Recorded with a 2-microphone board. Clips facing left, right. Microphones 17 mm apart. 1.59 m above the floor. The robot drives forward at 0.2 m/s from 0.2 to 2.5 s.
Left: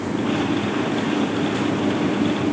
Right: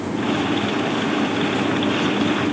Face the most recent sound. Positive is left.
No sound to turn to.